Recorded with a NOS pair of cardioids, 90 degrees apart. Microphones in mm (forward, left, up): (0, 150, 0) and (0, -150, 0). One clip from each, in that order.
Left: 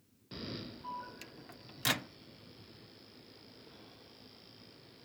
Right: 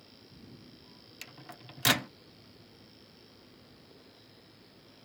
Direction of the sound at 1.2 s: 30° right.